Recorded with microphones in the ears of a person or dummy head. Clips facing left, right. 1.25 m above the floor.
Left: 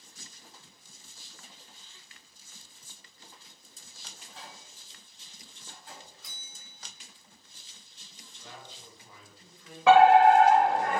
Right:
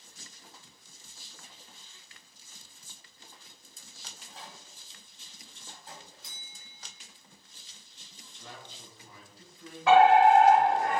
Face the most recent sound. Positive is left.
turn(degrees=55)  # may be behind; listen again after turning